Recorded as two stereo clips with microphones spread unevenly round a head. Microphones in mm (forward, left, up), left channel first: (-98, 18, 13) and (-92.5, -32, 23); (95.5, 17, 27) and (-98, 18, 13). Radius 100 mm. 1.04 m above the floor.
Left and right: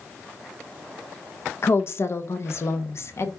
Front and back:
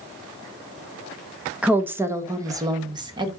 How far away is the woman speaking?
About 1.0 m.